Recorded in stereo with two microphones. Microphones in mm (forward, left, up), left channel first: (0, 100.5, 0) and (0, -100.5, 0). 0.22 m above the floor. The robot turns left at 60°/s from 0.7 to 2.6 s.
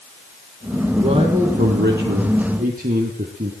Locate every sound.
0.9 s a man speaking: 25° right, 3 m; by 3.5 s 125° right, 3 m